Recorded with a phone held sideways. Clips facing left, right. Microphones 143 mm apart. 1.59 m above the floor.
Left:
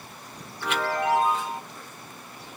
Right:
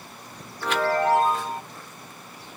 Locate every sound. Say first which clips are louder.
0.6 s a chime: right 4 dB; 40° right (ahead or behind), 2 m